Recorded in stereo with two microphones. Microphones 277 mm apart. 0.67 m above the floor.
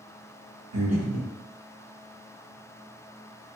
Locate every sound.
0.7 s breathing: 70° right (ahead or behind), 0.8 m